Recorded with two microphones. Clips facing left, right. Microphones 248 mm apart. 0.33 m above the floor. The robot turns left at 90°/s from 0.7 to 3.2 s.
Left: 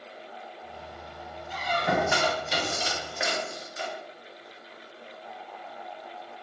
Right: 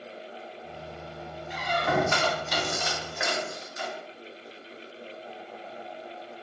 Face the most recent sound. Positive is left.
turn(degrees=30)  # may be behind; listen again after turning